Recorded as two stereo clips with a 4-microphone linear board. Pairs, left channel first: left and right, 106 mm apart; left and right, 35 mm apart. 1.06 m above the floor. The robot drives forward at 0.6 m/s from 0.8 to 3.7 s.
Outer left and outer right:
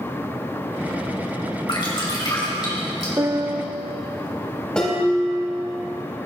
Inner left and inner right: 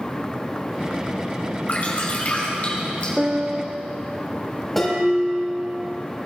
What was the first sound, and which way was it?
Dripping, 50° left (ahead or behind).